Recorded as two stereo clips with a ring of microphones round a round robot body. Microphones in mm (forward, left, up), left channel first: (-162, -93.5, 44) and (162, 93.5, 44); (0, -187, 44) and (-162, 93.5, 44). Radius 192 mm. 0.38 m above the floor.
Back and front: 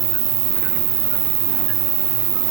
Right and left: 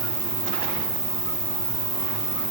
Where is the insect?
20° left, 1.5 m.